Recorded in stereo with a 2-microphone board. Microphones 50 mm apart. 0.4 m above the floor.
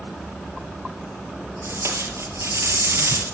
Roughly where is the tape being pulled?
Right.